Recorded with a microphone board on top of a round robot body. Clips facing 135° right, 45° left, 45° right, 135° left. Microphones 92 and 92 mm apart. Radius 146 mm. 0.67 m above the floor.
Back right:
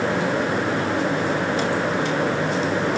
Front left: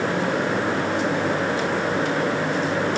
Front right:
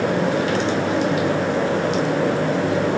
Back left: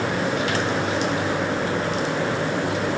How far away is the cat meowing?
I don't hear a cat meowing.